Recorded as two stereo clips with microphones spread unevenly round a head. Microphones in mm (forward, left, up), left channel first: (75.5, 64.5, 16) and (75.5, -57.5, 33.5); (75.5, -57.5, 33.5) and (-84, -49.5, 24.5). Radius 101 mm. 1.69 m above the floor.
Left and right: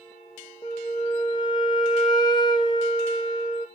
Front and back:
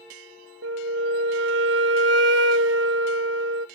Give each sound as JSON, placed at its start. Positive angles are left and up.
{"t": 0.6, "sound": "a flute", "azimuth_deg": 165, "distance_m": 0.7}